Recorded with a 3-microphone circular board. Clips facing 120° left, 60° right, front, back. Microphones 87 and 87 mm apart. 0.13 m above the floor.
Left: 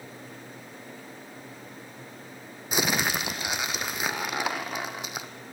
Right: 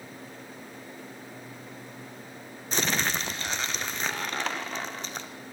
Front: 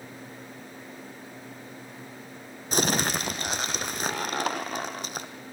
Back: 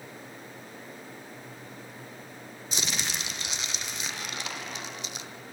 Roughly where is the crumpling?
Ahead left.